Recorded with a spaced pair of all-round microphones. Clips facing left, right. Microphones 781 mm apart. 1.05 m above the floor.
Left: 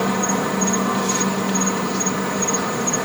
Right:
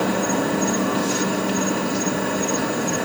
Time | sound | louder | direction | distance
0.0 | an insect | even | 35° left (ahead or behind) | ?